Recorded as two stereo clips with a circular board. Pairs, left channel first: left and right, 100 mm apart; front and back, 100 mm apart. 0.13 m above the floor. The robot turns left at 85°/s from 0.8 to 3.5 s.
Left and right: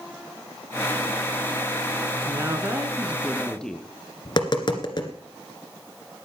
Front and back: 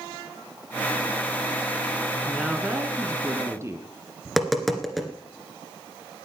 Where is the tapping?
90° left, 1.8 m.